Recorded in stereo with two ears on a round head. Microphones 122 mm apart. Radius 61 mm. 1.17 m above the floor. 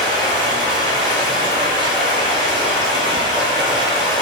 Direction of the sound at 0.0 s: 35° right (ahead or behind).